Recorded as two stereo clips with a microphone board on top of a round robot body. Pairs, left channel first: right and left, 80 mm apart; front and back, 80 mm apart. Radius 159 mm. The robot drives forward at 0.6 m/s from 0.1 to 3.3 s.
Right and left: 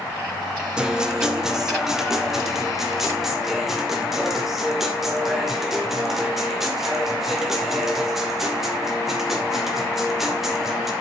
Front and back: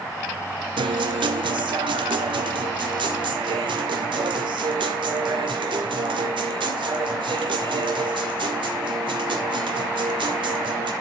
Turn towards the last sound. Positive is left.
turn(degrees=175)